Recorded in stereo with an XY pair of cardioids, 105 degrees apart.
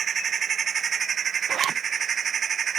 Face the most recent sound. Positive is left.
turn(degrees=-65)